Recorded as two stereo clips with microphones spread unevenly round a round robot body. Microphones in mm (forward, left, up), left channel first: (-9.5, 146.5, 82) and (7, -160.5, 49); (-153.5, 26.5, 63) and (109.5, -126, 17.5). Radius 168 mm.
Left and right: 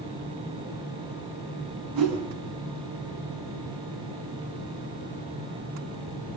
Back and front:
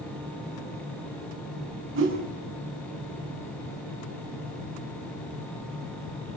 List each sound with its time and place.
1.9 s a whoosh: 80° right, 6 m